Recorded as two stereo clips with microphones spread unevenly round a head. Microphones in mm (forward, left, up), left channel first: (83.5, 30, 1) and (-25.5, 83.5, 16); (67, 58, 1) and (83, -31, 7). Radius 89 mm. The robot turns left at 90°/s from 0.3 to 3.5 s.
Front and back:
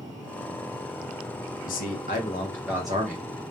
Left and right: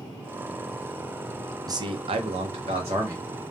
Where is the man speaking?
25° right, 0.7 m; by 3.3 s 170° right, 0.7 m.